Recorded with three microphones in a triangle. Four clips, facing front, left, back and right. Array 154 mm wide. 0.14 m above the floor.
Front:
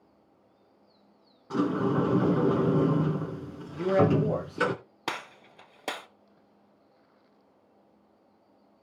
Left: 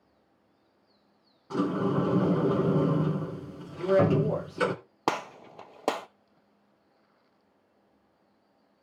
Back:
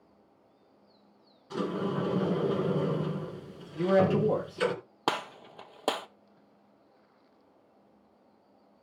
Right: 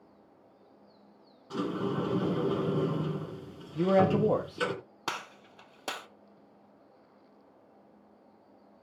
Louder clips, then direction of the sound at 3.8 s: Left 1 dB, front 1 dB; 95° right.